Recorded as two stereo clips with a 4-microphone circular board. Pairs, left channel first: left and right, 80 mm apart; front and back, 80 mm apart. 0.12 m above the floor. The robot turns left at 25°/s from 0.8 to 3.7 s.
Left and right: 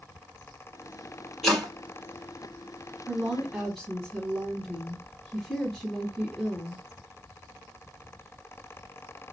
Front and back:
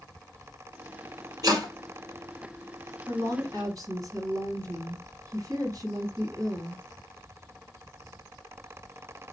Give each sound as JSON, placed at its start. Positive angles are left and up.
{"t": 1.4, "sound": "chopping", "azimuth_deg": 175, "distance_m": 2.0}
{"t": 3.1, "sound": "a woman speaking", "azimuth_deg": -170, "distance_m": 2.0}